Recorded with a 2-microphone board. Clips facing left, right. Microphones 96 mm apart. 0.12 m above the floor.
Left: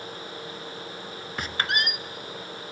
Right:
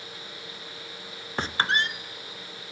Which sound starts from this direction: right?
A squeak, at 1.4 s.